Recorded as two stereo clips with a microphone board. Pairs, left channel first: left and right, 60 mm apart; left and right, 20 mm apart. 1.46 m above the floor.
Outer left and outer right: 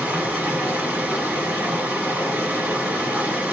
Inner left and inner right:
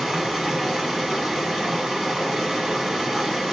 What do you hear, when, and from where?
0.0 s running water: 25° right (ahead or behind), 1.4 m